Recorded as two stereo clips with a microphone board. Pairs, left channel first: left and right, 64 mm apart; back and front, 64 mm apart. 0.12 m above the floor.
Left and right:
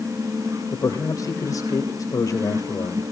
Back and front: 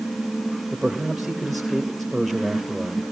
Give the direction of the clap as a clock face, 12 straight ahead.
I don't hear a clap.